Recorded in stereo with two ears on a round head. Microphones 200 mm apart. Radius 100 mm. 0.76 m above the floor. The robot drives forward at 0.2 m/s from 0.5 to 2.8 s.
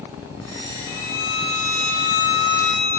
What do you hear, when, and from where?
0.9 s a violin: 45° left (ahead or behind), 1.1 m